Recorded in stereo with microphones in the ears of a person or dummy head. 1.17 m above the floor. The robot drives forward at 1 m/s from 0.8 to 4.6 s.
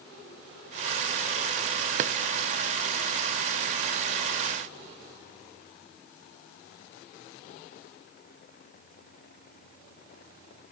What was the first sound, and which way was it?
A drawer, 45° right (ahead or behind).